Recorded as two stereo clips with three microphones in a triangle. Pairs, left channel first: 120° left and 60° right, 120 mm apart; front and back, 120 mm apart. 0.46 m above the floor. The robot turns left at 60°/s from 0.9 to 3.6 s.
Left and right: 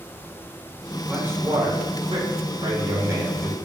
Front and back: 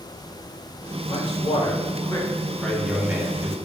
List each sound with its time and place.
1.1 s a man speaking: 15° left, 1.0 m; by 3.5 s 130° right, 1.0 m